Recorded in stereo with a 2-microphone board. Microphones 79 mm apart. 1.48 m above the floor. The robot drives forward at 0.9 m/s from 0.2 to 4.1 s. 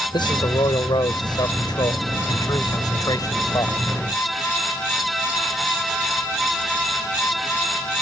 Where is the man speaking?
75° left (ahead or behind); by 3.8 s 50° left (ahead or behind).